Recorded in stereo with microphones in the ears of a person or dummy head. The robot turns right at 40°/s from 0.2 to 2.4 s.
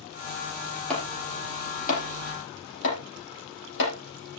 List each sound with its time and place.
0.9 s chopping: 5° left (ahead or behind), 7.5 m; by 4.4 s 65° left (ahead or behind), 7.5 m